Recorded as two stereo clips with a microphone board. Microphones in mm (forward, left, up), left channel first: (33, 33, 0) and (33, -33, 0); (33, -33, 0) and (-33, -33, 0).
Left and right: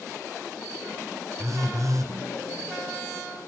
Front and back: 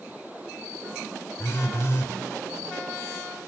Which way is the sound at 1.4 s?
55° right.